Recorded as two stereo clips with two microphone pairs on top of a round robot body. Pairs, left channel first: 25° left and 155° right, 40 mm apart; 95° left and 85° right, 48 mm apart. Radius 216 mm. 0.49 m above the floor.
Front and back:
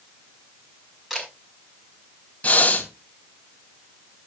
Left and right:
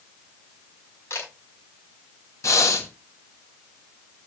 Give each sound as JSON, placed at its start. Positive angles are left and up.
{"t": 1.1, "sound": "a camera shutter", "azimuth_deg": 125, "distance_m": 5.0}
{"t": 2.4, "sound": "breathing", "azimuth_deg": 85, "distance_m": 2.5}